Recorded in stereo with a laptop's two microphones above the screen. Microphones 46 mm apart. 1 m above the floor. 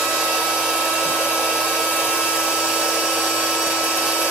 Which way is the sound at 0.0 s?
15° right (ahead or behind).